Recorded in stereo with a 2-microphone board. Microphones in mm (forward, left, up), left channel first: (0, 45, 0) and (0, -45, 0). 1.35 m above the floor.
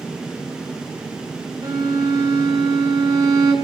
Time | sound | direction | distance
1.6 | a violin | 40° right (ahead or behind) | 1.4 m